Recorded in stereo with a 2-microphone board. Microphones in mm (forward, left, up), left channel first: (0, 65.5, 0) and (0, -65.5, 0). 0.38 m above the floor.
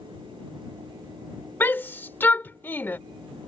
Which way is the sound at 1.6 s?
15° left (ahead or behind).